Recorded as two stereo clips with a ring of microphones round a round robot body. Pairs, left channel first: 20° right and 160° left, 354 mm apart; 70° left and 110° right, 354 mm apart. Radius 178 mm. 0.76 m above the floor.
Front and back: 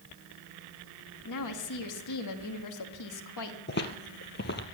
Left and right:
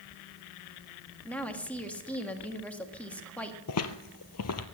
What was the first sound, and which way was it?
A woman speaking, 15° right.